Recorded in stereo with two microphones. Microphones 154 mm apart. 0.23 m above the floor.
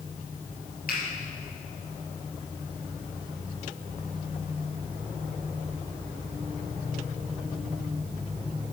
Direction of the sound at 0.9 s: 75° left (ahead or behind).